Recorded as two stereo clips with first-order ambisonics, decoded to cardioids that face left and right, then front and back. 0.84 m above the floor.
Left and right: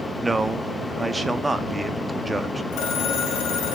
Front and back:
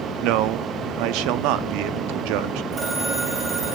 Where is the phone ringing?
115° left, 5.5 m.